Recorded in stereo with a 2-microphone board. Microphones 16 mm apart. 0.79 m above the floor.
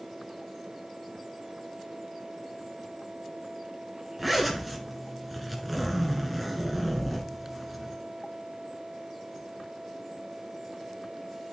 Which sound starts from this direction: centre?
A zipper, at 4.2 s.